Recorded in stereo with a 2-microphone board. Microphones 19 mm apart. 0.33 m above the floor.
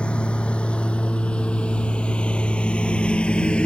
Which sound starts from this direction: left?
A lawn mower, at 0.0 s.